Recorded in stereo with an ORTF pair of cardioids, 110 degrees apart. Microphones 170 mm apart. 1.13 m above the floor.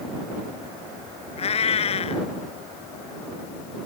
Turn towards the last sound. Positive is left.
turn(degrees=40)